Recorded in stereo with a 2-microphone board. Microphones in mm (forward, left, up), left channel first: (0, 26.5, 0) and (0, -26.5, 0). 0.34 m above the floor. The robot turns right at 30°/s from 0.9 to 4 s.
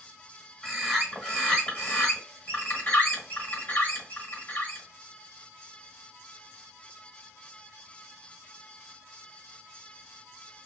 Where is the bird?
5° left, 1.3 m; by 4.8 s 95° left, 1.3 m.